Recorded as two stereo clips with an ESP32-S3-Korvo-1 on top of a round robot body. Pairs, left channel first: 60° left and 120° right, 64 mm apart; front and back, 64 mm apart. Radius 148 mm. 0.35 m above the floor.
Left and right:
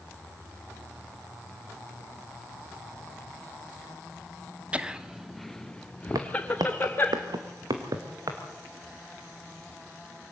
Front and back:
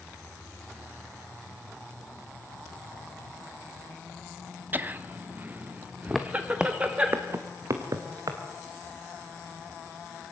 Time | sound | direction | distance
4.7 | laughter | 170° right | 1.3 m
6.2 | footsteps | 85° right | 1.4 m